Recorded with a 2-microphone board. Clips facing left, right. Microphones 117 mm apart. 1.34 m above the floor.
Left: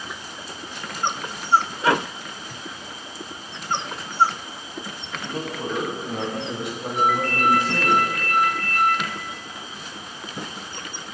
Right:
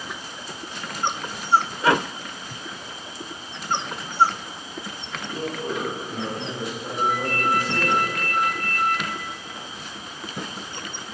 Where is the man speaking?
65° left (ahead or behind), 8.5 m; by 8.0 s 60° left (ahead or behind), 11 m.